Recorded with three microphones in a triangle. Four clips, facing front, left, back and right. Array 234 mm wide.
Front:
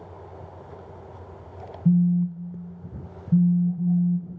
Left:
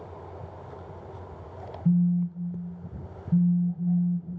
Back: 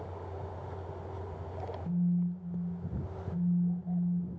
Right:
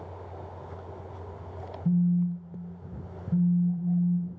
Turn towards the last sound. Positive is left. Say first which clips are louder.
# left 1 dB, front 11 dB
turn(degrees=5)